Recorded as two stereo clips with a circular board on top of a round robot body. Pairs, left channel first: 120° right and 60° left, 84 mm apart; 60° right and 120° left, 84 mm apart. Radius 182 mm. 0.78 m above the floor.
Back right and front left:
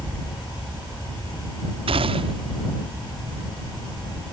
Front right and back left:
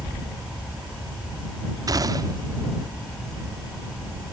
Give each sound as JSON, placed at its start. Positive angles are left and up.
{"t": 1.9, "sound": "a gunshot", "azimuth_deg": 70}